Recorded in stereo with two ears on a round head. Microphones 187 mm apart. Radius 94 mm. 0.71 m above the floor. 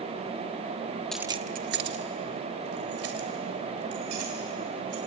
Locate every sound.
1.1 s keys jangling: 5° left (ahead or behind), 0.6 m; by 5.0 s 85° right, 5.5 m